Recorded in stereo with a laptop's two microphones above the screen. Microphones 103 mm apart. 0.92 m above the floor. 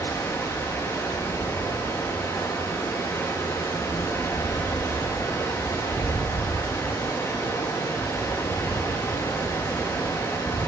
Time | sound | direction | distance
0.0 | running water | 25° left (ahead or behind) | 1.3 m